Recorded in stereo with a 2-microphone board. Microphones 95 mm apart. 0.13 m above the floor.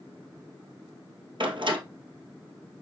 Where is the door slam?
60° right (ahead or behind), 1.9 m.